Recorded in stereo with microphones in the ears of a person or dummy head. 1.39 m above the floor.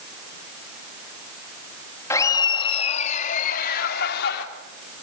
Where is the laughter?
15° left (ahead or behind), 2.5 m; by 4.5 s 65° left (ahead or behind), 4 m.